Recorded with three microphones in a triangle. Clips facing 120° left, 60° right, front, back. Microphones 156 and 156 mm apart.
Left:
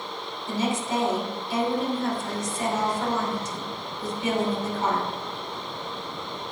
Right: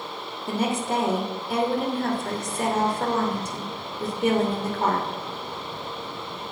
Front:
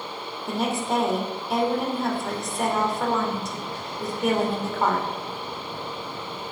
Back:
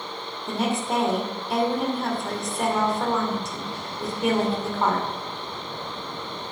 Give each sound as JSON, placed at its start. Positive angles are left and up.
{"t": 0.5, "sound": "a woman speaking", "azimuth_deg": -90, "distance_m": 2.5}